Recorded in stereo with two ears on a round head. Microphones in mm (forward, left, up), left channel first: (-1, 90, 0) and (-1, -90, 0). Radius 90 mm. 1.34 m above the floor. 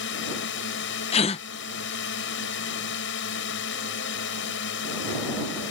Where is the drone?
65° left (ahead or behind).